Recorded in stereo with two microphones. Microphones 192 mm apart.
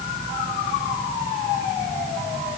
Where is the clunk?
No clunk in this recording.